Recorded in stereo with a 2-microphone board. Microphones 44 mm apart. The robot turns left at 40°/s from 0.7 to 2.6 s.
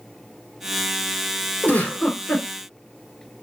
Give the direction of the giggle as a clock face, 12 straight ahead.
7 o'clock.